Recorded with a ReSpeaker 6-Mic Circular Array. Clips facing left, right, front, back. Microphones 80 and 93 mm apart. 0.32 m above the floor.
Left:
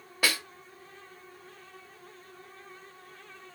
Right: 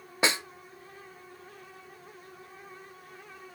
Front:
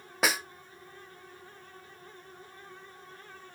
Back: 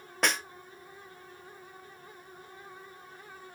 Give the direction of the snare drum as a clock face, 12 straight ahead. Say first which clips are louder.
Right 2 dB, front 1 dB; 3 o'clock.